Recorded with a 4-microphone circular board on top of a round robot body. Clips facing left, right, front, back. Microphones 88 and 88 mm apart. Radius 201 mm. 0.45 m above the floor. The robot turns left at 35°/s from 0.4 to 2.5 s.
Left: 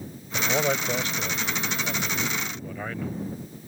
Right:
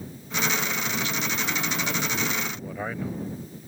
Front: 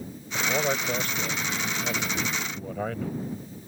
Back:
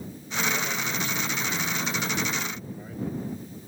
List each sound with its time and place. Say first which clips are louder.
0.3 s a man speaking: left 3 dB, front 3 dB; 60° left; by 3.1 s 10° right